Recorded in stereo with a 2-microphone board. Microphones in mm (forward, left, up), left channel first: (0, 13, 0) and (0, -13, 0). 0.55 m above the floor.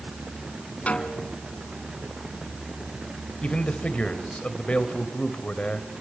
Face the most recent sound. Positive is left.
turn(degrees=50)  # may be behind; listen again after turning